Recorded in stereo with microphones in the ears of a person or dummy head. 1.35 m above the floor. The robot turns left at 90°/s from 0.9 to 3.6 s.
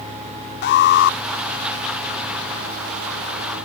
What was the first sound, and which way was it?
An alarm, 55° left (ahead or behind).